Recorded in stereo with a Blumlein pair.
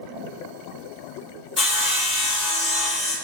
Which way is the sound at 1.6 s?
25° left.